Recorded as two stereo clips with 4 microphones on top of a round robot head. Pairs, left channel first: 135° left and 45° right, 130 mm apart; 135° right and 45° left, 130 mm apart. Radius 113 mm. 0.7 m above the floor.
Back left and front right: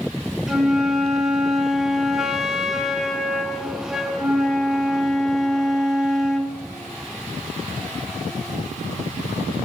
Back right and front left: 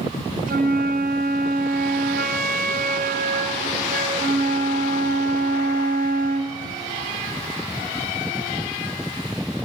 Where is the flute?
40° left, 2.5 m.